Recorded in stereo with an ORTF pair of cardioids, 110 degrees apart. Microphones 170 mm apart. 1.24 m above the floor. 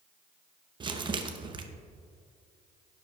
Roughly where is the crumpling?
Ahead right.